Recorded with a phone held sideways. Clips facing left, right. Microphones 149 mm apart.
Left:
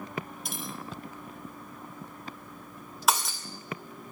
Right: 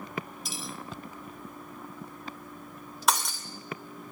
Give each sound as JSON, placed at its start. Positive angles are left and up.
{"t": 0.5, "sound": "cutlery clinking", "side_deg": 55, "distance_m": 0.7}
{"t": 3.1, "sound": "breaking glass", "side_deg": 0, "distance_m": 2.0}